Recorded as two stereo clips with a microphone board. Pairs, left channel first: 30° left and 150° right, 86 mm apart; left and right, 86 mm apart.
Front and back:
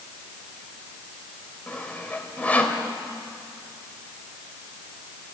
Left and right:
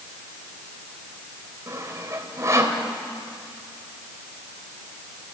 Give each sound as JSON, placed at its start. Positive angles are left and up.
{"t": 1.7, "sound": "sawing", "azimuth_deg": -40, "distance_m": 2.5}